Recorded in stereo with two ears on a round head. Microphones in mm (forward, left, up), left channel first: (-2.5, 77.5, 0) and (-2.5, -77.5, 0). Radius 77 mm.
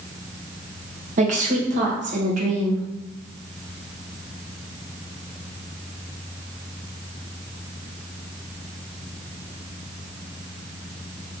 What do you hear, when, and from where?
1.2 s a woman speaking: 40° right (ahead or behind), 1.1 m